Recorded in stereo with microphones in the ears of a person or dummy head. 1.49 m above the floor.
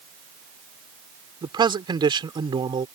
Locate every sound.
1.4 s a man speaking: 25° right (ahead or behind)